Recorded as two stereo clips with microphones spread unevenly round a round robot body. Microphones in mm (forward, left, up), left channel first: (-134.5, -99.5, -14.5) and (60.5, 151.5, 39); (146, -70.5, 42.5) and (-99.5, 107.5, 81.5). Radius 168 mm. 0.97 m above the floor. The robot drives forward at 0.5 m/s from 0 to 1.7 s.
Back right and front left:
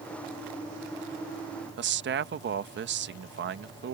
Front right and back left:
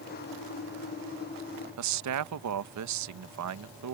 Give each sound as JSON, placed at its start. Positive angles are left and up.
{"t": 1.8, "sound": "a man speaking", "azimuth_deg": 110}